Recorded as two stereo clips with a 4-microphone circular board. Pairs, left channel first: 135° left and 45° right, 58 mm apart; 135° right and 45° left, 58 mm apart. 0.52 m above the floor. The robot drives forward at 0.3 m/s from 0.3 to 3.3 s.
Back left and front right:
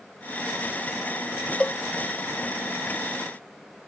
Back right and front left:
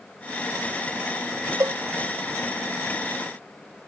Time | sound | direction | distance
1.6 | a cowbell | 65° left | ?